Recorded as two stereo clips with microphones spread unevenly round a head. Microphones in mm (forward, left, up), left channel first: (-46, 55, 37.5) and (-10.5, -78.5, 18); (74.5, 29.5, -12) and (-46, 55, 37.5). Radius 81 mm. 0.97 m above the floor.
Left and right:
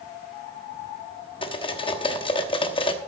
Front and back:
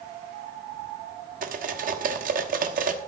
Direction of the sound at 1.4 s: 160° left.